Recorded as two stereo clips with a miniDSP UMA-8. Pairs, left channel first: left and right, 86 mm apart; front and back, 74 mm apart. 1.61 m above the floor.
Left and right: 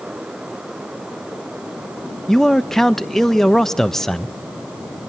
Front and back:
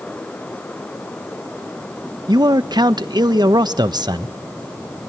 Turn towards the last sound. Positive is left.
turn(degrees=175)